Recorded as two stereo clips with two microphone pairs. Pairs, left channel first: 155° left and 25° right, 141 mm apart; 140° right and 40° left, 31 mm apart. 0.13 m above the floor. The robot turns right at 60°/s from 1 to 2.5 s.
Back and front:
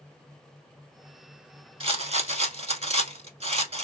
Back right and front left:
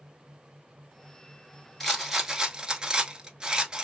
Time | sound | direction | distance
1.8 | a rattle | 55° right | 0.8 m